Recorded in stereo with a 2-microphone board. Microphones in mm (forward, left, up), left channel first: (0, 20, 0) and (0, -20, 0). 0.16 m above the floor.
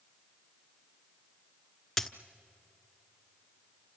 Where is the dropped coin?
5° left (ahead or behind), 0.9 m.